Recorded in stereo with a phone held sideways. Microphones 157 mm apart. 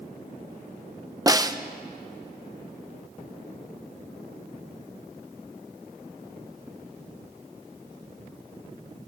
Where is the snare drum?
25° right (ahead or behind), 0.8 m.